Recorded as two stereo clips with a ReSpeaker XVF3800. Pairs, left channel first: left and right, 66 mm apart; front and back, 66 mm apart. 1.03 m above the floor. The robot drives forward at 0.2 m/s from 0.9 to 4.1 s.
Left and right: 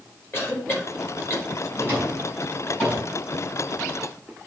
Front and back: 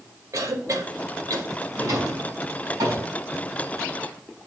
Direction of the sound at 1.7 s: 140° left.